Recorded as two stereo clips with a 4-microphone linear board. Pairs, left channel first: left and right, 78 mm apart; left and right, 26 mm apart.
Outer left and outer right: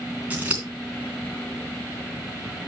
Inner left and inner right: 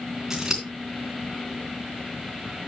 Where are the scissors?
20° right (ahead or behind), 3 m.